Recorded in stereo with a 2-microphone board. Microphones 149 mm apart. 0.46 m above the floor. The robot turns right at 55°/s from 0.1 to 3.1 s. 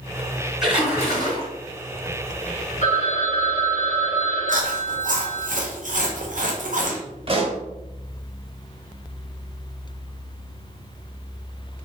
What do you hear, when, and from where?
0.6 s a splash: 175° right, 2.0 m; by 1.5 s 130° right, 2.0 m
2.8 s a phone ringing: 55° left (ahead or behind), 1.3 m; by 5.5 s 60° left (ahead or behind), 1.3 m
4.5 s chewing: 65° right (ahead or behind), 0.8 m
7.3 s a pop: 40° right (ahead or behind), 1.0 m